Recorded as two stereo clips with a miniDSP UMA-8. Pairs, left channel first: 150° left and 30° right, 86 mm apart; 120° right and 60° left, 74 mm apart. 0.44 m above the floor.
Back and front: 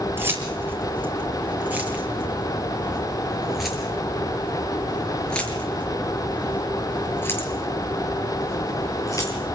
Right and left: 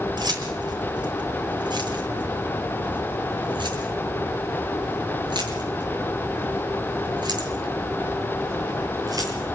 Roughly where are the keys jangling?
Ahead left.